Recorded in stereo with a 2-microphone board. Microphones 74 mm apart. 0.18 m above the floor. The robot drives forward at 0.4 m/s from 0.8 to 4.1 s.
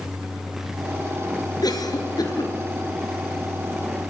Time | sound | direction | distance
1.6 | a cough | 60° left (ahead or behind) | 3 m